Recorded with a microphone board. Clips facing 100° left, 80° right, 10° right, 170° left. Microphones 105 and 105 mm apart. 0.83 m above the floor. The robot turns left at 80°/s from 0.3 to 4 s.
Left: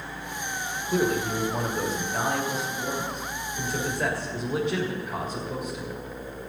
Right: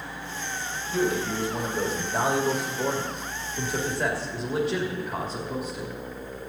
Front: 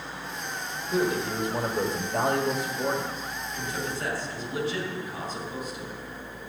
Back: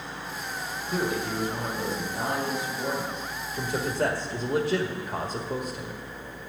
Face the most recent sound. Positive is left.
turn(degrees=-165)